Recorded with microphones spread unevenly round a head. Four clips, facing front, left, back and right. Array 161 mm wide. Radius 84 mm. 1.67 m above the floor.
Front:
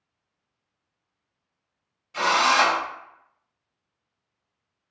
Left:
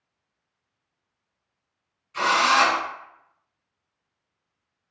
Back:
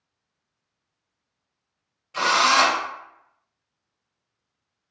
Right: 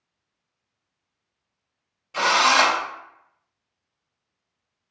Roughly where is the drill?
Right.